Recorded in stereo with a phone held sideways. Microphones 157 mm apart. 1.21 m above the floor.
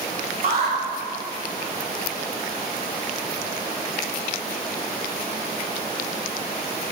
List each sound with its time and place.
0.4 s an alarm: 80° right, 3.5 m